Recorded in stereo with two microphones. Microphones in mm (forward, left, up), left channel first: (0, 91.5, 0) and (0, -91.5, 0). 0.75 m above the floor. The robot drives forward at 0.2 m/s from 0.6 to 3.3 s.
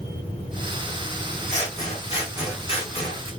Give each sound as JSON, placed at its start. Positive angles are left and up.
{"t": 1.5, "sound": "scissors", "side_deg": 40, "distance_m": 1.0}